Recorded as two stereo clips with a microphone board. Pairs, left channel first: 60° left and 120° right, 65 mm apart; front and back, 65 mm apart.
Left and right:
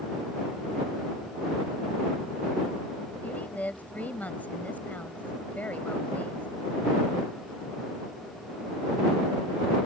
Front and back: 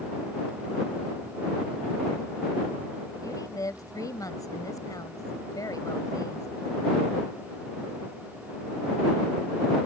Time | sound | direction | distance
3.2 | a woman speaking | straight ahead | ?